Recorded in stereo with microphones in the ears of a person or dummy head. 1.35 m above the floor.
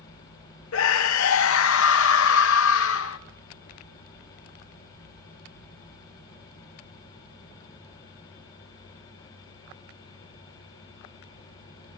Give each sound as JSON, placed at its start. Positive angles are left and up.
{"t": 0.7, "sound": "a scream", "side_deg": 65, "distance_m": 0.7}